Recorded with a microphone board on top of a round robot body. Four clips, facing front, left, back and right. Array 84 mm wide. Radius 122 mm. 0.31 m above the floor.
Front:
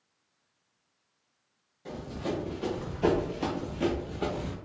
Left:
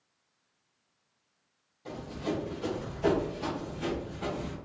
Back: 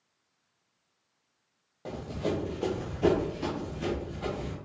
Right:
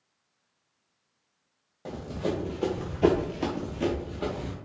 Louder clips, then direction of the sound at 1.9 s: Right 3 dB, back 2 dB; 135° right.